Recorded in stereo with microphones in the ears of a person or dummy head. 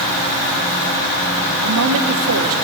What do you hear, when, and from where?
1.6 s a woman speaking: 75° right (ahead or behind), 1.7 m